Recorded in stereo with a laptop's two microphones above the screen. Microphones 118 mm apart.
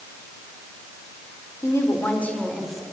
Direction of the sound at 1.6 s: 25° left (ahead or behind).